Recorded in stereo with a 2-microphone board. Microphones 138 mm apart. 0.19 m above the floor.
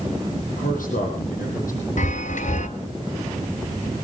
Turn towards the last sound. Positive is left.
turn(degrees=65)  # may be behind; listen again after turning